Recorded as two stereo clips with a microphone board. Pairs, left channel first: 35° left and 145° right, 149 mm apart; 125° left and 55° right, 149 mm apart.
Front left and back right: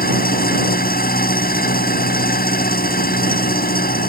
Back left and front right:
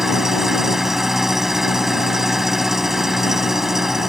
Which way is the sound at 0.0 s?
30° left.